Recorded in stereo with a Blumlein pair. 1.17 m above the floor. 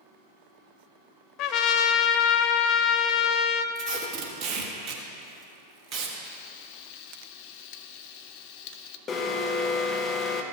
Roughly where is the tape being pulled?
Ahead right.